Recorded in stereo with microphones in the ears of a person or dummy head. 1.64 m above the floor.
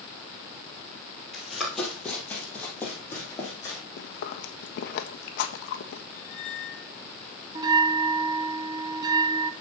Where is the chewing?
60° left (ahead or behind), 1.2 m.